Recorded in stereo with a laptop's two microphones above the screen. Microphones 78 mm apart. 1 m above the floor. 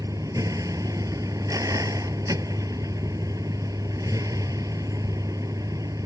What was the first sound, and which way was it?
A vehicle, 50° right (ahead or behind).